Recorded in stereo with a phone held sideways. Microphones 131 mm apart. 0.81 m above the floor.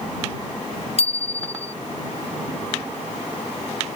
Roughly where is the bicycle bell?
Left.